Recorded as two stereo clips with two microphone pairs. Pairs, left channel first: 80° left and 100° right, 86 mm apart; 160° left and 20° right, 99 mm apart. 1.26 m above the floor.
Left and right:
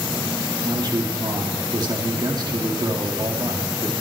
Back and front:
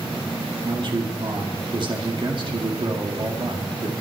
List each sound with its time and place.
0.6 s a man speaking: 60° right, 2 m